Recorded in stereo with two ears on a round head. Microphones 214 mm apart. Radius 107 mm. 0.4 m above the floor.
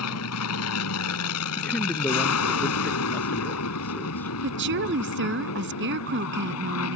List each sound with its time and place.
0.0 s an aircraft: 70° left (ahead or behind)
1.6 s a man speaking: 5° left (ahead or behind)
4.4 s a woman speaking: 50° right (ahead or behind)